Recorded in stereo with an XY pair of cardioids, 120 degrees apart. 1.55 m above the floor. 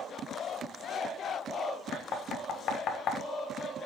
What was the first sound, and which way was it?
Knocking, 55° left.